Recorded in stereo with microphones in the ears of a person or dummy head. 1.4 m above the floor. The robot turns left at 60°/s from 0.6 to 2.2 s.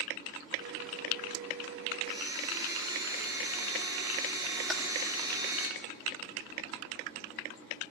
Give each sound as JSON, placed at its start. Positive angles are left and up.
{"t": 2.0, "sound": "a blender", "side_deg": -35, "distance_m": 3.0}
{"t": 4.7, "sound": "typing on a keyboard", "side_deg": 0, "distance_m": 3.5}